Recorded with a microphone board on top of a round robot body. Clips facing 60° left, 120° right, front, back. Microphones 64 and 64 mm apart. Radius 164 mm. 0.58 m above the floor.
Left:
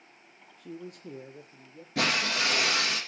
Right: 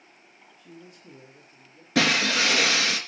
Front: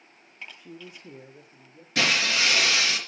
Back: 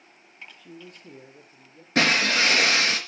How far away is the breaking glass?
About 3.5 m.